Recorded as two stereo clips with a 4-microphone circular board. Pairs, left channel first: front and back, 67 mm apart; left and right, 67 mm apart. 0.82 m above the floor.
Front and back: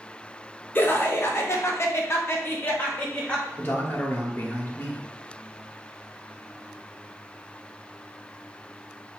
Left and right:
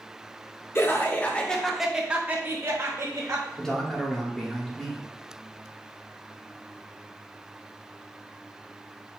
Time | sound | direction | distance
0.8 | laughter | 50° left | 1.0 m
3.6 | a man speaking | 15° left | 1.3 m